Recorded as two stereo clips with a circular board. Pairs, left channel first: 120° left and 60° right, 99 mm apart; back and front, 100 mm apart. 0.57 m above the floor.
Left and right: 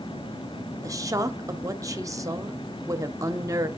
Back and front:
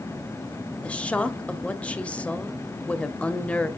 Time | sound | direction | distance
0.8 | a woman speaking | 105° right | 0.8 m